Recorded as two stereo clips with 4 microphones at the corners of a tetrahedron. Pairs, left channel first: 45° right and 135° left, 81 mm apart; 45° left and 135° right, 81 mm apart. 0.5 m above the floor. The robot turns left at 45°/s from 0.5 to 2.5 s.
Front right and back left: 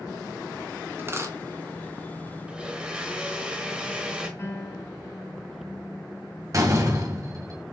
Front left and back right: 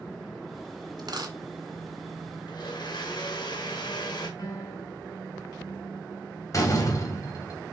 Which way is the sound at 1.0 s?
160° right.